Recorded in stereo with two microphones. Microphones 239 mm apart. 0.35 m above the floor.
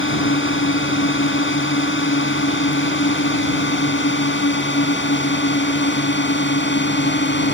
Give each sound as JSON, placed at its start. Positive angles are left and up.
{"t": 0.0, "sound": "a drone", "side_deg": 55}